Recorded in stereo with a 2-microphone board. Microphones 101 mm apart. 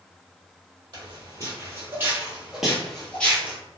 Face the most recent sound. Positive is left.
turn(degrees=20)  # may be behind; listen again after turning